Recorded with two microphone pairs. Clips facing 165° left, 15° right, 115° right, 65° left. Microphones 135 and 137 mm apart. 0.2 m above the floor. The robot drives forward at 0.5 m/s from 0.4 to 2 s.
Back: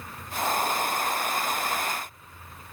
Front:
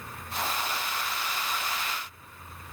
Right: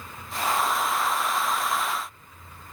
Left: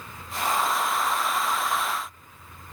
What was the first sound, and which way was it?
Only background noise.